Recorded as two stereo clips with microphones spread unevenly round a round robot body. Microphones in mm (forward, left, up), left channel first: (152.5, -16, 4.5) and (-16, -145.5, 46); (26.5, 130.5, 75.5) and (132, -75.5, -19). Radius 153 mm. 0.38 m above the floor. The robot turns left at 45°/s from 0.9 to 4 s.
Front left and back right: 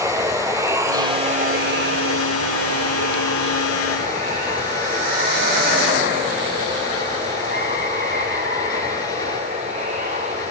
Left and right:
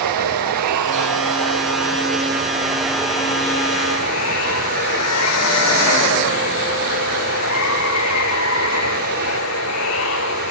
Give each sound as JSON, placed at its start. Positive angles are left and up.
{"t": 0.0, "sound": "running water", "azimuth_deg": -70, "distance_m": 1.2}